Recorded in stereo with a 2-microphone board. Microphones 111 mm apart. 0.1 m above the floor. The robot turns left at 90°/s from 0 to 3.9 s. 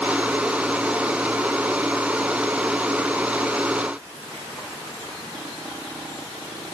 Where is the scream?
I don't hear a scream.